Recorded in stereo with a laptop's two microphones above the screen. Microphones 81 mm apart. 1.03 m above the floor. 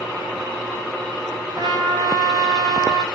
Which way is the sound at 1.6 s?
65° right (ahead or behind).